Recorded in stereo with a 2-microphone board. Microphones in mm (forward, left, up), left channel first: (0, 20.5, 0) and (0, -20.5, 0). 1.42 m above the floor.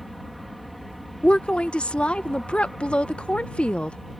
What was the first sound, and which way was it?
An aircraft, centre (ahead or behind).